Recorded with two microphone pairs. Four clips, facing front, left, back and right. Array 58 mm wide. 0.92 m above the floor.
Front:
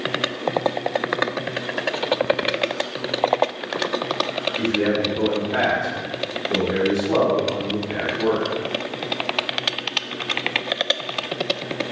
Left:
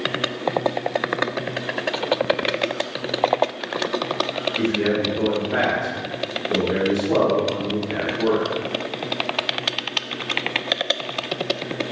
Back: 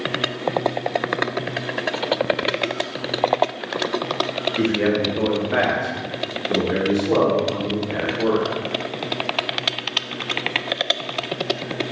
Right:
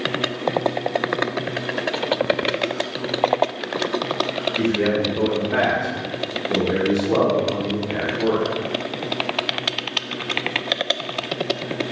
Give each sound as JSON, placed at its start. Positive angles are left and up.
{"t": 4.6, "sound": "a man speaking", "azimuth_deg": -170, "distance_m": 0.8}